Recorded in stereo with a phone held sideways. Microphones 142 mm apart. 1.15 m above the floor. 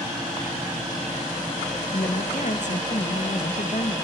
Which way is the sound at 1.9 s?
60° left (ahead or behind).